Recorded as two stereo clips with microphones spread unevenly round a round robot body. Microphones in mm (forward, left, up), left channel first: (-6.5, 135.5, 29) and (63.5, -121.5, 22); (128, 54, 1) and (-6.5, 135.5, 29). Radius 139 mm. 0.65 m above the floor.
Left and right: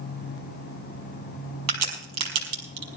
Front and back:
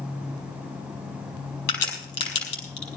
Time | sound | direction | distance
1.7 | a crack | 45° right | 4.5 m